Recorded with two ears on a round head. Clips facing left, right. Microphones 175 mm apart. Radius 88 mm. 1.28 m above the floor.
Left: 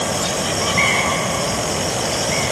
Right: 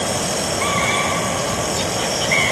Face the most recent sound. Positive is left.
No sound to turn to.